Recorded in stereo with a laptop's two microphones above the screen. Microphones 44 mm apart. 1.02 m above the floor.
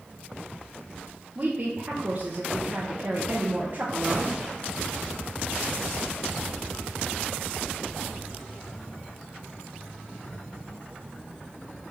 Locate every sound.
1.4 s a woman speaking: 35° right (ahead or behind), 0.6 m